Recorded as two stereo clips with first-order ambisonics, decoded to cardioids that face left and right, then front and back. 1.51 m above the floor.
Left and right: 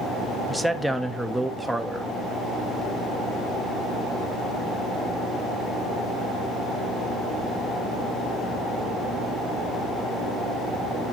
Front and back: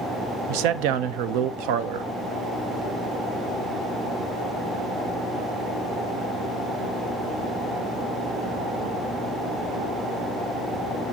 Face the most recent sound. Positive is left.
turn(degrees=180)